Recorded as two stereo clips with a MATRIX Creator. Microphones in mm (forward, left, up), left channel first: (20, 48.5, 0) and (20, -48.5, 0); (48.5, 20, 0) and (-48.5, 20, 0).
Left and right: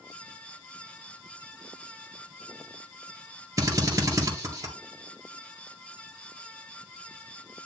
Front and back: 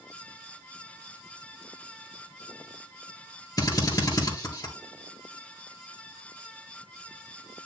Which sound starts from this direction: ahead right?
A drill, at 3.6 s.